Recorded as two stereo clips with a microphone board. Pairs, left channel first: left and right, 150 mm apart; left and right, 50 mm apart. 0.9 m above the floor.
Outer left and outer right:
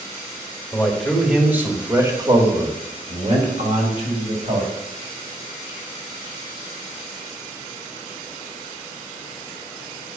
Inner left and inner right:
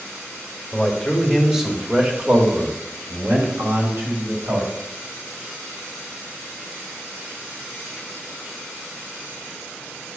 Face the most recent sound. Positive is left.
turn(degrees=-60)  # may be behind; listen again after turning